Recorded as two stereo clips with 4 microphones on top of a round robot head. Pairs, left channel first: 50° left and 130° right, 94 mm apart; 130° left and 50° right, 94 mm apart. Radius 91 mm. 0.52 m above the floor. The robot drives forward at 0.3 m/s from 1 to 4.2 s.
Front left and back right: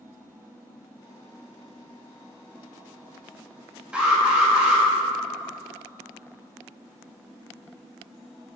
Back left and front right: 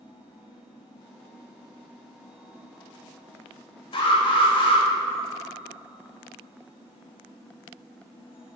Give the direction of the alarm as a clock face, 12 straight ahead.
7 o'clock.